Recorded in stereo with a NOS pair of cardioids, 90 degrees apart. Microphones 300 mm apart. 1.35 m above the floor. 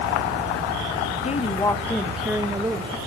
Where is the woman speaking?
25° left, 1.8 m; by 3.0 s 20° right, 2 m.